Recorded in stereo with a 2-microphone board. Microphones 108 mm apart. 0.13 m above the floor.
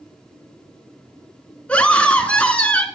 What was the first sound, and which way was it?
A scream, 10° left (ahead or behind).